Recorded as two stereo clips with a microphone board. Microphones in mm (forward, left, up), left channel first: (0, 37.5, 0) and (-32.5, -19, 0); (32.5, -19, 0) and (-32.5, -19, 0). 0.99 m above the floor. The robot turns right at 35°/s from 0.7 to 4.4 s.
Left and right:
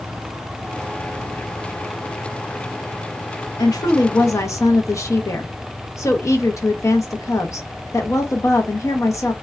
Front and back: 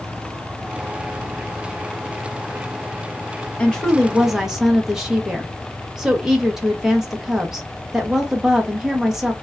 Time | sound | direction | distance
3.6 | a woman speaking | 70° left | 0.7 m